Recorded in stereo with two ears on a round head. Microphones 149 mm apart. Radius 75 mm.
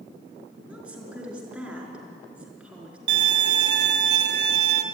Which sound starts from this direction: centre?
A woman speaking, at 0.7 s.